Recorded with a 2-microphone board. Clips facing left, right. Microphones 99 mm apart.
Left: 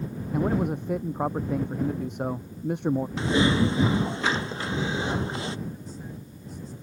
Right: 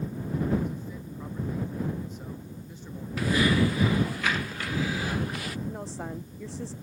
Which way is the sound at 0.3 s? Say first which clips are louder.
Left 4 dB; 60° left (ahead or behind).